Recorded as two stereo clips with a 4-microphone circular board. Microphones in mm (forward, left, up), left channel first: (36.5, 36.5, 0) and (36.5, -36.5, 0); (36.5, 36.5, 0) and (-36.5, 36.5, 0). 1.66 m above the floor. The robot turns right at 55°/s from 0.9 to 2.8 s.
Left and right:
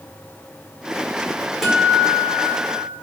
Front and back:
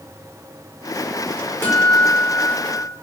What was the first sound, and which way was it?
A guitar, straight ahead.